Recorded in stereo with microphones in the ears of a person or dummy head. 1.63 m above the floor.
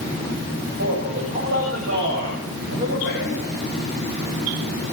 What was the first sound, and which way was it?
A man speaking, 60° right (ahead or behind).